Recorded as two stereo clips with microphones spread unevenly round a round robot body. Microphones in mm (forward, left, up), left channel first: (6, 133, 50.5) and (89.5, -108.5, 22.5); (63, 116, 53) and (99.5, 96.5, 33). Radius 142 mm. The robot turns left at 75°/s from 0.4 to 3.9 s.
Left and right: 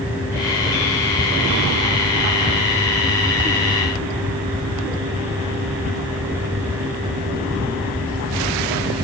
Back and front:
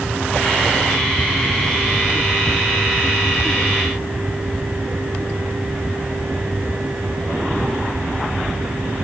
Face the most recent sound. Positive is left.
No sound to turn to.